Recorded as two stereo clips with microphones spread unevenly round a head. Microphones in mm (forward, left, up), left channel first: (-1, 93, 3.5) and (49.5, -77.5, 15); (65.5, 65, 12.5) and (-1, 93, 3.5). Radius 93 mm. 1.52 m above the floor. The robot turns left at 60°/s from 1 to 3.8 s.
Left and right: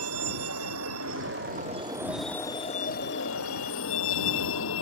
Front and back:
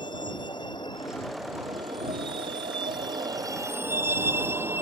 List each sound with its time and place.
0.0 s a vehicle: 90° right; by 4.8 s 100° left